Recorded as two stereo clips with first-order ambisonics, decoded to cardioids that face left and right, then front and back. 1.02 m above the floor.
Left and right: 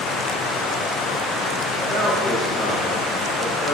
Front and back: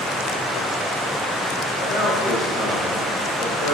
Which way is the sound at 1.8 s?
25° left.